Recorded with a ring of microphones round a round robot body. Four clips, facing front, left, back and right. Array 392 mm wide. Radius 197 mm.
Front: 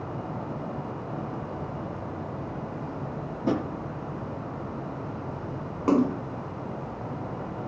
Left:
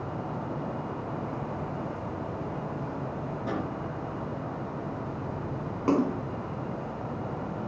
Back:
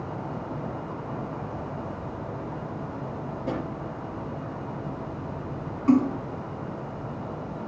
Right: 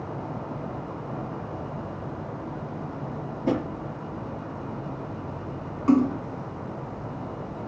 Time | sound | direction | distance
3.5 | a drawer | 20° right | 3.5 m
5.9 | a splash | 25° left | 1.3 m